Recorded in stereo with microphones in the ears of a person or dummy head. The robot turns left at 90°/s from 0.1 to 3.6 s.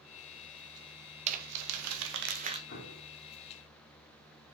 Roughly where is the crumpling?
Right.